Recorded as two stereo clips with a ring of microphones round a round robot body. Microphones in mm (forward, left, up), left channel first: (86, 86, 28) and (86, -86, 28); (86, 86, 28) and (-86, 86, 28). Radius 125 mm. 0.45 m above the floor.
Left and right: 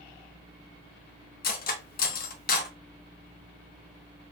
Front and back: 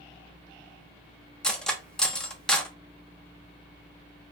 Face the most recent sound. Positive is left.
turn(degrees=85)